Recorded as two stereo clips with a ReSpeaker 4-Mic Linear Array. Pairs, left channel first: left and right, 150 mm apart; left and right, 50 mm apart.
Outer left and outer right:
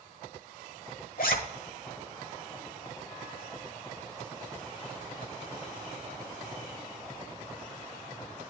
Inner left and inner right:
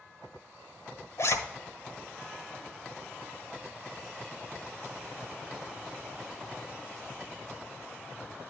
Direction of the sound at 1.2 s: 80° left.